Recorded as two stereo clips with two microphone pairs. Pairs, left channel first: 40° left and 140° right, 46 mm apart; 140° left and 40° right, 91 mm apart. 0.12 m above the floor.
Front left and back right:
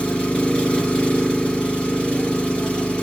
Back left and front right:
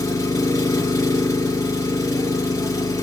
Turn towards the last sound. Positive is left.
turn(degrees=100)